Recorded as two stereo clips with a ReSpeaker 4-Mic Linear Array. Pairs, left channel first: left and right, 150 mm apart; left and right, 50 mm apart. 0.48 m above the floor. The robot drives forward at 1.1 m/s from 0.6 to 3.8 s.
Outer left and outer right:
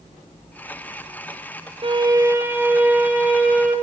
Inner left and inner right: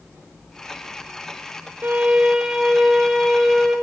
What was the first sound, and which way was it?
A violin, 40° right (ahead or behind).